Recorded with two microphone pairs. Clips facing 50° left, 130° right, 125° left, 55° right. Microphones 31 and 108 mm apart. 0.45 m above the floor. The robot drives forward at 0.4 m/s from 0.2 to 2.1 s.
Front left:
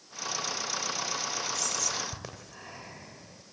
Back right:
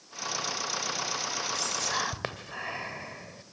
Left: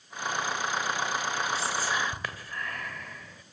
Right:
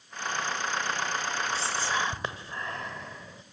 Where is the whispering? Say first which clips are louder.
Back right 3 dB, even; 110° right, 2 m; by 3.4 s 115° right, 2 m.